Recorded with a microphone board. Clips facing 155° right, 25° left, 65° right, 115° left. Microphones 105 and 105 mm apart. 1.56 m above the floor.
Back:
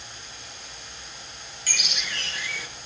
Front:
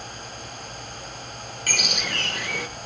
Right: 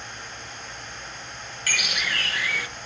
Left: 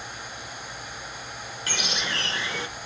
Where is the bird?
50° left, 1.1 m.